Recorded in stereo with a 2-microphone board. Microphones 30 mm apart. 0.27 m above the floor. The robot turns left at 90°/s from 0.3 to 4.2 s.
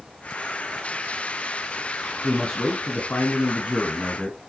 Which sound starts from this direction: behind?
A man speaking, at 2.2 s.